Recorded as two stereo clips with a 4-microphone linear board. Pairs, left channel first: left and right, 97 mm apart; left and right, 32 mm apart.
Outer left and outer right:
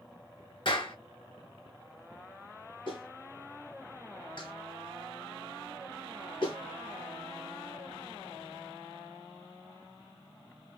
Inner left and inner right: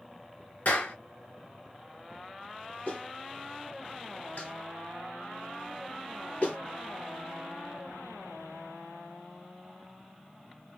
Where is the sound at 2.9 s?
55° left (ahead or behind), 1.8 m.